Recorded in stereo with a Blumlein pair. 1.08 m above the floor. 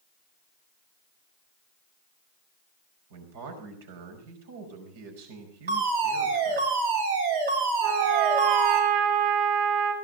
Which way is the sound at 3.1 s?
55° right.